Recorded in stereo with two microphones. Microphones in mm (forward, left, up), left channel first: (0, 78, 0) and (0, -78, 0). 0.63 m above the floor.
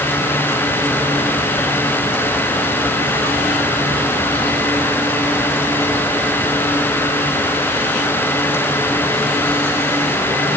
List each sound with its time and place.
Only background noise.